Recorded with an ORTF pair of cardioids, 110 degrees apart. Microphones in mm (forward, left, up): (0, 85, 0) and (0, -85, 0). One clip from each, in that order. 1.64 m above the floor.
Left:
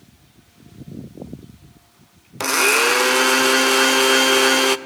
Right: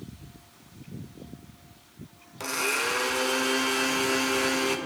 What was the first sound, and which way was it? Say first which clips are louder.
A blender: left 11 dB; 55° left.